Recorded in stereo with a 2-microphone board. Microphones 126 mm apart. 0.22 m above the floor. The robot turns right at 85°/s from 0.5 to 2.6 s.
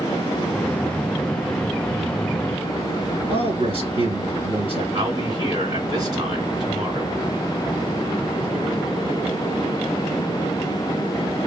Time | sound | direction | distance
3.3 | a man speaking | 50° right (ahead or behind) | 2.5 m
4.9 | a man speaking | 35° right (ahead or behind) | 2.5 m